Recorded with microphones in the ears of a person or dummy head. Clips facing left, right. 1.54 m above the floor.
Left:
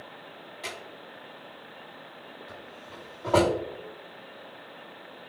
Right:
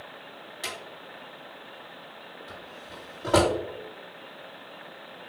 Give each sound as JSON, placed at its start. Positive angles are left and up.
{"t": 0.6, "sound": "a drawer", "side_deg": -20, "distance_m": 1.3}